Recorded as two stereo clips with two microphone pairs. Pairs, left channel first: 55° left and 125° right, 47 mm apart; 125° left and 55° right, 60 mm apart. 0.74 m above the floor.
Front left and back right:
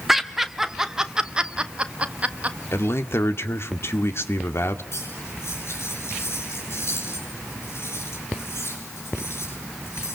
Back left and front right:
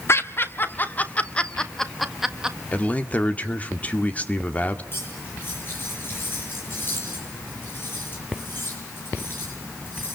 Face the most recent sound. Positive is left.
turn(degrees=75)